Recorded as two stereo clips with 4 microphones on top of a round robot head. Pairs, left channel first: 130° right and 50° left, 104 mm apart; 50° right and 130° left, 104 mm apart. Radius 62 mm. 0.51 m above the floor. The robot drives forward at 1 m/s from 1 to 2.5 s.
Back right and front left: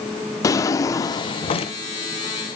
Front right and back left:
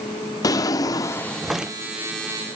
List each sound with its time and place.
0.4 s a drawer: 85° right, 0.6 m; by 1.8 s 150° right, 1.0 m